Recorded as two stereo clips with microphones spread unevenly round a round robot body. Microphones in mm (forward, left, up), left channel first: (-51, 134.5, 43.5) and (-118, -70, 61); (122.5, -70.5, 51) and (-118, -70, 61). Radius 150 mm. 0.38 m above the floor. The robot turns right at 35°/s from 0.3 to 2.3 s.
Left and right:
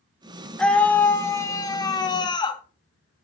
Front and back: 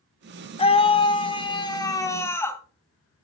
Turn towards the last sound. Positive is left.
turn(degrees=60)